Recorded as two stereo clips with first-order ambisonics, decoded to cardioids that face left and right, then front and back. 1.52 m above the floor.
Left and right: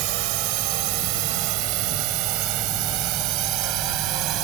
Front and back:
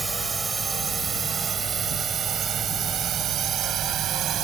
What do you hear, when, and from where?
0.0 s a drone: 100° right; by 4.5 s 130° right